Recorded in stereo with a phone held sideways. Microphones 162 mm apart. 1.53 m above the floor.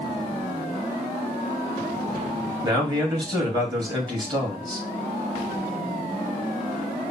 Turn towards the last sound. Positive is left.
turn(degrees=-25)  # may be behind; listen again after turning